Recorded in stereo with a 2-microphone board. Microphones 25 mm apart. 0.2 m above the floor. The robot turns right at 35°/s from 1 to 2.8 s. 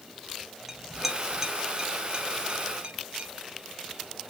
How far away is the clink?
About 0.9 m.